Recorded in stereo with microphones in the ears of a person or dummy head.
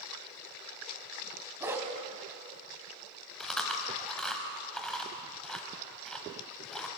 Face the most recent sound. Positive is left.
turn(degrees=0)  # may be behind; listen again after turning